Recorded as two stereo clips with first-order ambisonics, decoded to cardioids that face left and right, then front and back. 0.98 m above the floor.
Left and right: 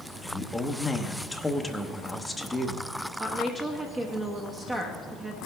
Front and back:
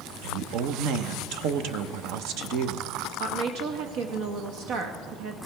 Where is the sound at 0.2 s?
175° left, 0.9 m.